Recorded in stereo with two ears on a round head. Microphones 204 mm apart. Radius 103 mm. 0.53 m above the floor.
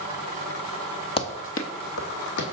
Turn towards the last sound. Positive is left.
turn(degrees=55)  # may be behind; listen again after turning